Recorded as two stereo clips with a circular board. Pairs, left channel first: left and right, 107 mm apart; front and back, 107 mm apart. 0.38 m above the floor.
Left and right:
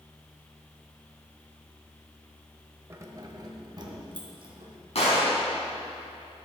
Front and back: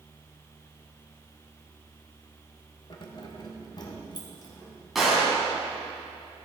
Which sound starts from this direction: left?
A gunshot, at 5.0 s.